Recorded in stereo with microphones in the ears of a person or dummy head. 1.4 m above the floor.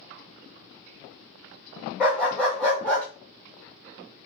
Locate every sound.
2.0 s a dog barking: 10° left (ahead or behind), 2 m